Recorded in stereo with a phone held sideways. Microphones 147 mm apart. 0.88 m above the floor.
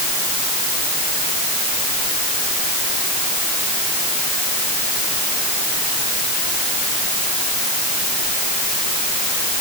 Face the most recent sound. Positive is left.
No sound to turn to.